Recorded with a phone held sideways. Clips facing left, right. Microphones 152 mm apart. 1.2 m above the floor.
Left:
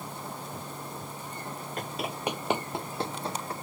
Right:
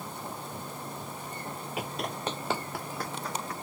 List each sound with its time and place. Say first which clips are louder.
1.8 s running footsteps: even; 5° right (ahead or behind); by 3.5 s 30° left (ahead or behind)